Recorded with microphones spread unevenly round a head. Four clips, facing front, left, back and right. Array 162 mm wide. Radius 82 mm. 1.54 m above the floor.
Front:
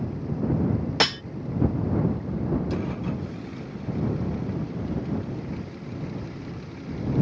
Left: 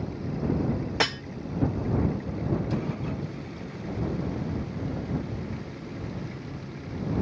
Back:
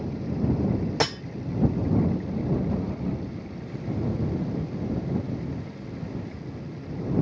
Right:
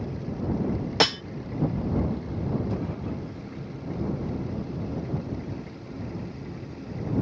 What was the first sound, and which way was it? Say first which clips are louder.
Cutlery clinking: right 6 dB, front 3 dB; 35° right.